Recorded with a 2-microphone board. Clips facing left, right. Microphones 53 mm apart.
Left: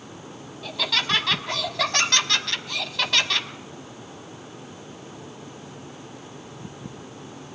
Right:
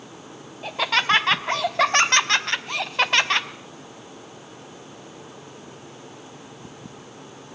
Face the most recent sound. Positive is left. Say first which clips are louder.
# right 5 dB
turn(degrees=-35)  # may be behind; listen again after turning